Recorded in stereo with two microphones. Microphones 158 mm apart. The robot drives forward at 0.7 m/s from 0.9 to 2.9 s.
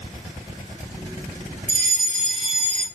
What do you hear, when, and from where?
1.7 s a fire alarm: 60° right (ahead or behind), 2.5 m; by 2.9 s 55° right (ahead or behind), 2.5 m